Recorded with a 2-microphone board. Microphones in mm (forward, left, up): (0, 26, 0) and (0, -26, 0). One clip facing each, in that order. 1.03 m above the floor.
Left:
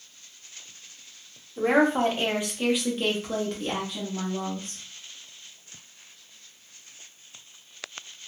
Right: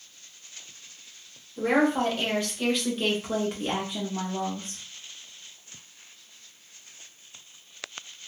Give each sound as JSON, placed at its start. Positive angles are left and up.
{"t": 1.6, "sound": "a woman speaking", "side_deg": 25, "distance_m": 1.0}